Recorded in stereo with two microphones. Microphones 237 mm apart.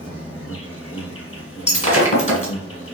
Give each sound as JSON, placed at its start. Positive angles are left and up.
{"t": 0.0, "sound": "an insect", "side_deg": 65, "distance_m": 1.7}
{"t": 1.7, "sound": "breaking glass", "side_deg": 30, "distance_m": 1.5}